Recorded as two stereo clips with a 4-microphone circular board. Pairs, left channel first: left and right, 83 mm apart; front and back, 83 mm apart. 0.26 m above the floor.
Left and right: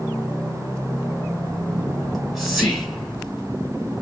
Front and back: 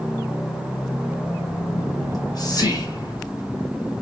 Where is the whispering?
Straight ahead, 1.6 m.